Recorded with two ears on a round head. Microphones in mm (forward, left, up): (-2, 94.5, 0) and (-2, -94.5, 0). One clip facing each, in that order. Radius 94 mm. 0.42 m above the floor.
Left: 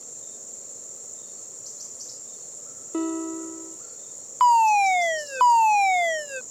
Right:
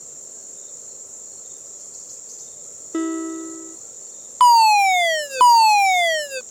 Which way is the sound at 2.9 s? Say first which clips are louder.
Right 3 dB; 20° right (ahead or behind).